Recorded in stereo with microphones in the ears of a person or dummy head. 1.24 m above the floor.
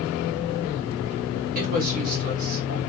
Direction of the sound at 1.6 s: 45° right (ahead or behind).